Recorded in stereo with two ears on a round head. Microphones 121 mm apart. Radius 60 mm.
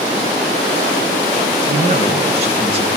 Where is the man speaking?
50° right (ahead or behind), 5.5 m.